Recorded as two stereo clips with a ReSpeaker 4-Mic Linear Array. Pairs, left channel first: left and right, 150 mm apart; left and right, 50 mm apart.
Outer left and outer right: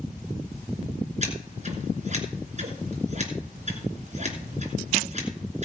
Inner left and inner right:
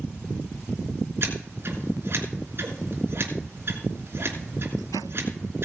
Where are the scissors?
50° right (ahead or behind), 3 m.